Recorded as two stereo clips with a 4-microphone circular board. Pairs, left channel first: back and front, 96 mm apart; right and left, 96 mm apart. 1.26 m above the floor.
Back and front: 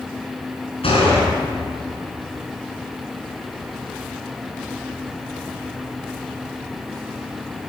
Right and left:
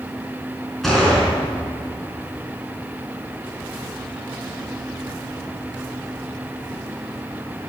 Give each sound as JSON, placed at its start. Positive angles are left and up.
{"t": 0.8, "sound": "a gunshot", "azimuth_deg": -175, "distance_m": 4.5}